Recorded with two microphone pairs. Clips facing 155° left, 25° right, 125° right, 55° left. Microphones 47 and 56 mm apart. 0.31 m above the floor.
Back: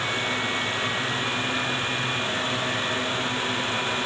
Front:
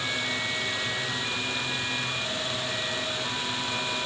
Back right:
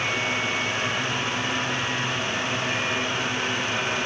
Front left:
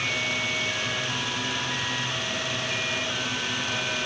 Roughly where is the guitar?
I don't hear a guitar.